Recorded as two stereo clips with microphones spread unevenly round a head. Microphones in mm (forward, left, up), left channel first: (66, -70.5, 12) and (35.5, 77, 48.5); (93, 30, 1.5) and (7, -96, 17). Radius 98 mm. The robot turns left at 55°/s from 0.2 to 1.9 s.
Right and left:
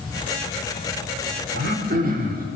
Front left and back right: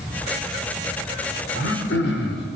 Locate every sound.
1.6 s throat clearing: 100° left, 4 m; by 2.5 s 80° left, 4 m